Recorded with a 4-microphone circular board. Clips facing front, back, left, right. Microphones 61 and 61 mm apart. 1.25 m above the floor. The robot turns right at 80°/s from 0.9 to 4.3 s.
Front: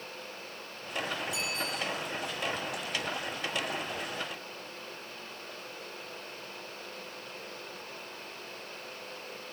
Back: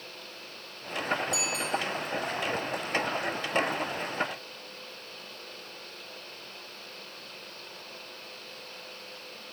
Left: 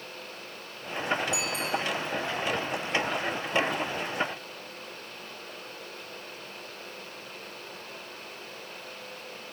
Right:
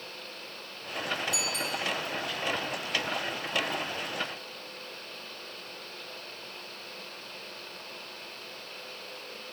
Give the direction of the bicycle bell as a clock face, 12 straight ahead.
7 o'clock.